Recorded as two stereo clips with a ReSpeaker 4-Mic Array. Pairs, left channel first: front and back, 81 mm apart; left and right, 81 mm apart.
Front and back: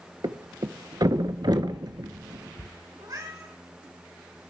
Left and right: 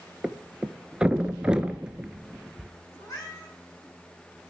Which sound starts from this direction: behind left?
A cat meowing, at 3.0 s.